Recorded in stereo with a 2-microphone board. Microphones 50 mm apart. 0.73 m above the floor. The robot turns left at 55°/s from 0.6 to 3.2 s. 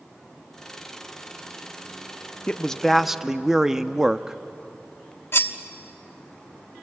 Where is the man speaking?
30° left, 0.7 m; by 4.4 s 10° right, 0.7 m.